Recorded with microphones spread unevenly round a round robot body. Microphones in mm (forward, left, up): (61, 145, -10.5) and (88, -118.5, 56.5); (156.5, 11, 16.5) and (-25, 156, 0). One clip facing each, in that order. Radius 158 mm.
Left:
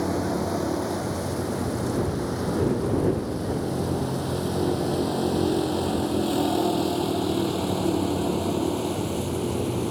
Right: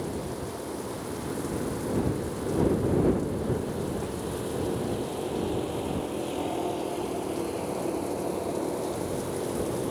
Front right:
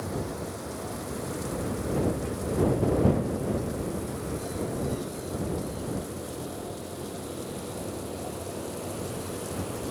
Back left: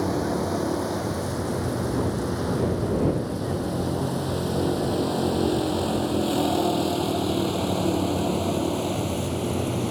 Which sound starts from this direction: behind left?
A vehicle, at 0.0 s.